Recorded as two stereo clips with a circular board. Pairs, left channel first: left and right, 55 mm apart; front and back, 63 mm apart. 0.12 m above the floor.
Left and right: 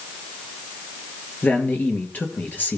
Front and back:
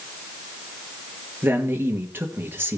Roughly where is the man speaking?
Behind left.